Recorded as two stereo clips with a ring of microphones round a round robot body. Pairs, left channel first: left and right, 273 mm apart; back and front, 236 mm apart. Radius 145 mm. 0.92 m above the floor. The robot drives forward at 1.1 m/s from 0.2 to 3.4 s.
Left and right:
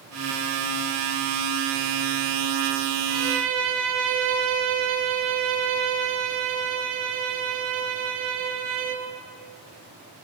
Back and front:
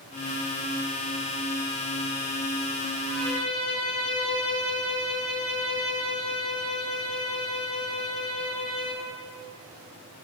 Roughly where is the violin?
Right.